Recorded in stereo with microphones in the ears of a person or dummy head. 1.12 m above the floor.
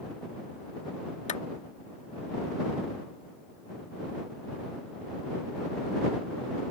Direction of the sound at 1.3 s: 35° left (ahead or behind).